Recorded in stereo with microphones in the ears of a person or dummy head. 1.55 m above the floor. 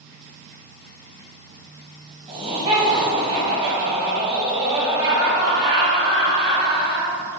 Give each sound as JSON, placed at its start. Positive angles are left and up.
{"t": 2.3, "sound": "laughter", "side_deg": -25, "distance_m": 1.2}